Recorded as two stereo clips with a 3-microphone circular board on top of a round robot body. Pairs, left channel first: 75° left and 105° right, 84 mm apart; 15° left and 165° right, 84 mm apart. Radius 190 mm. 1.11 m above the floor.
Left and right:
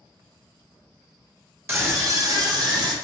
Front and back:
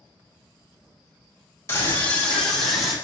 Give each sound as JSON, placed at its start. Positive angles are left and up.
{"t": 1.7, "sound": "a scream", "azimuth_deg": -45, "distance_m": 1.9}